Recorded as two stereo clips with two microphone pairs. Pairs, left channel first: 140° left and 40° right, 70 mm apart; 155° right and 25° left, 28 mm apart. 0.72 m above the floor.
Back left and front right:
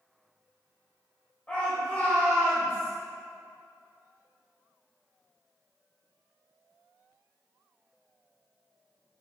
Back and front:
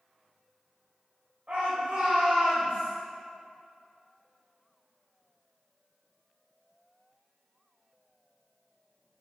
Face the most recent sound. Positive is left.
turn(degrees=75)